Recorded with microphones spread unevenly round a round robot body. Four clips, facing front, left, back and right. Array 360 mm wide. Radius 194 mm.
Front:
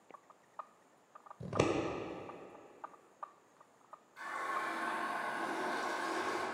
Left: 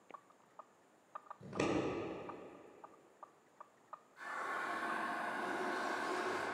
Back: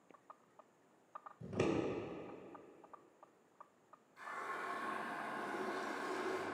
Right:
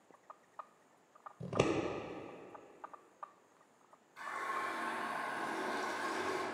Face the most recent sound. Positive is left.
turn(degrees=-80)